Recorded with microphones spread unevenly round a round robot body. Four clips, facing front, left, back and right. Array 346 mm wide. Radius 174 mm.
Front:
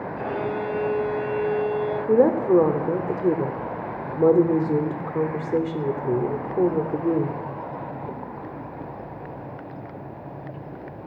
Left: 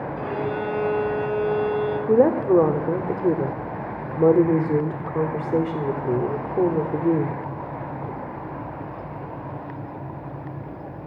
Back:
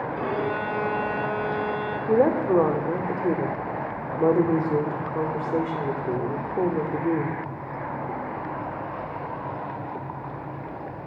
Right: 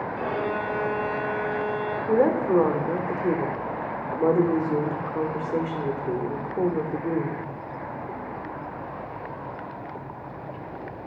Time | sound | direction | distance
0.2 | a violin | 170° left | 5.5 m
2.1 | a woman speaking | 50° left | 0.9 m